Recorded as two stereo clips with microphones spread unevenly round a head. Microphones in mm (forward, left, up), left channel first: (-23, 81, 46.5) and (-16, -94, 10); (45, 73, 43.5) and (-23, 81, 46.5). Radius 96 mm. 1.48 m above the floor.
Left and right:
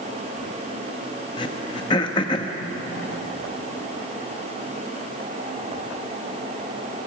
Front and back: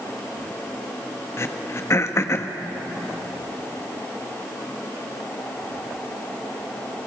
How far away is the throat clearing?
About 1.3 m.